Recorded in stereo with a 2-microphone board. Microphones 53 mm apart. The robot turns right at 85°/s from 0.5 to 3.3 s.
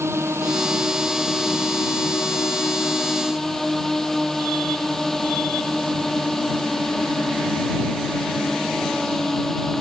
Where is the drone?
65° right; by 9.8 s 175° left.